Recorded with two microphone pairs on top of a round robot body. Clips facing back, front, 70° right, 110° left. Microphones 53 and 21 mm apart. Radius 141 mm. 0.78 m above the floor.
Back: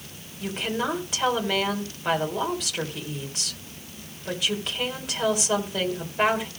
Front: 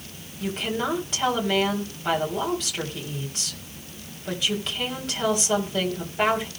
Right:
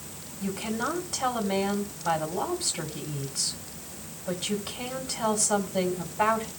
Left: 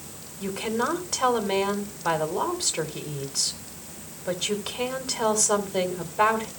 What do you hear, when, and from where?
0.4 s a woman speaking: 95° left, 3.5 m